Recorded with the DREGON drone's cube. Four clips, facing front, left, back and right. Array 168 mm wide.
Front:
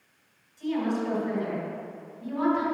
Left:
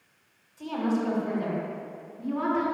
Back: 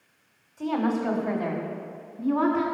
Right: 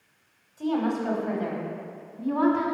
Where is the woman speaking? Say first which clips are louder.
Right 2 dB, back 2 dB; 155° right, 3 m; by 2.6 s 130° right, 4.5 m.